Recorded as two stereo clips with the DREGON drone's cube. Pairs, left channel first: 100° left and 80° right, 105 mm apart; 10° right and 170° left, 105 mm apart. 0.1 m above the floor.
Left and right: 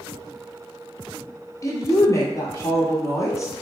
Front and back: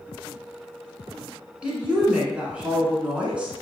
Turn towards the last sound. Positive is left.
turn(degrees=100)